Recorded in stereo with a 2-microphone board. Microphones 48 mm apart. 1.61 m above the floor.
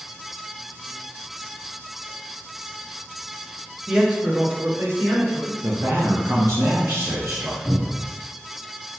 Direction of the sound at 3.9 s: 10° right (ahead or behind).